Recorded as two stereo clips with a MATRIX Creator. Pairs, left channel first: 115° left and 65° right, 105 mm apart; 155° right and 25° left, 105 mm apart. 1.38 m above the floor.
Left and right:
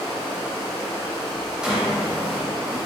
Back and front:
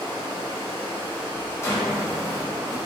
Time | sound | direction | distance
0.0 | running water | 25° left | 1.8 m
1.6 | a drawer | 145° right | 0.6 m